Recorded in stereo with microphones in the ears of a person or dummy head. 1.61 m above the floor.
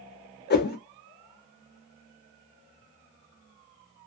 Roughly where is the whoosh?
Left.